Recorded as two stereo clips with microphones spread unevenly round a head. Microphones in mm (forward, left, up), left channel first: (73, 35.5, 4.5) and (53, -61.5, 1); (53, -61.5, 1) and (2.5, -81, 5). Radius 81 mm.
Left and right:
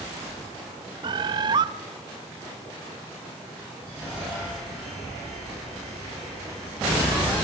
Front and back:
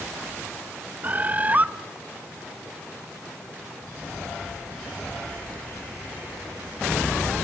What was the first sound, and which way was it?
A bird, 125° right.